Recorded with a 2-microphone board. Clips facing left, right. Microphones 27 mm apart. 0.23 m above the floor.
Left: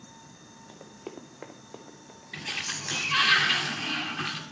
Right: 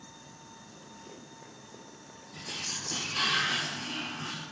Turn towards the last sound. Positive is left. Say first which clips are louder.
# left 4 dB
turn(degrees=75)  # may be behind; listen again after turning